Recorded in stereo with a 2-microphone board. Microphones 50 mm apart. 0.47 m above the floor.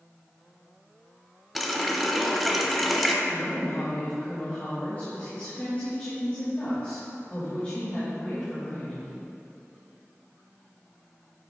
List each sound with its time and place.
1.6 s a running tap: centre (ahead or behind), 0.6 m
3.2 s a woman speaking: 35° left (ahead or behind), 1.8 m